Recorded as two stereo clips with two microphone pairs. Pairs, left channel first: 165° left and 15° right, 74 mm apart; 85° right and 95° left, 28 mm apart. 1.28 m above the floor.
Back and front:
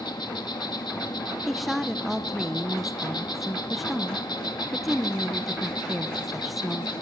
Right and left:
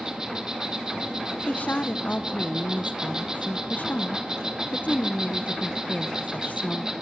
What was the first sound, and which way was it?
An insect, 160° left.